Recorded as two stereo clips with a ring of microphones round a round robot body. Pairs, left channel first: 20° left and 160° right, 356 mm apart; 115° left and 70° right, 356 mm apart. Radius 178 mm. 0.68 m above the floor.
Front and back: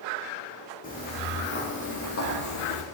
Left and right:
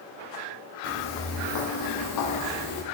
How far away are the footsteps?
About 2 m.